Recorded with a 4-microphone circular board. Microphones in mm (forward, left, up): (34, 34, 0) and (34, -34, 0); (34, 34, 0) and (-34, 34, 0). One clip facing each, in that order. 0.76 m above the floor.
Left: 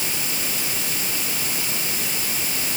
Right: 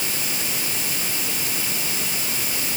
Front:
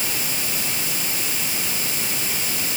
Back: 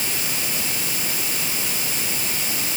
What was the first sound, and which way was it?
Only background noise.